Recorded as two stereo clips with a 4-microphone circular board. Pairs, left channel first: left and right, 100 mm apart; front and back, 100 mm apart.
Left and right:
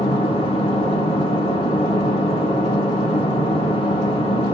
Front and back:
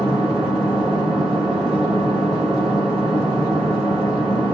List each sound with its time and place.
0.0 s an engine running: 95° left, 4 m